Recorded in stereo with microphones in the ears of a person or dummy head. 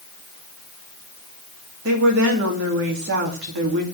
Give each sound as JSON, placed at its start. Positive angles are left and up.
{"t": 1.9, "sound": "a woman speaking", "side_deg": -60, "distance_m": 2.5}